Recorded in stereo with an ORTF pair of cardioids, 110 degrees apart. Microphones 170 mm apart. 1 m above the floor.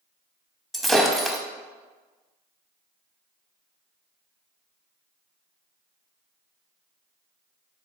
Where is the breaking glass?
Straight ahead, 0.5 m.